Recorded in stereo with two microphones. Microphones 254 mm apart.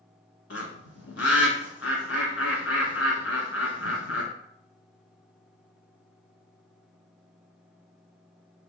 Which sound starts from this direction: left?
A bird, at 0.5 s.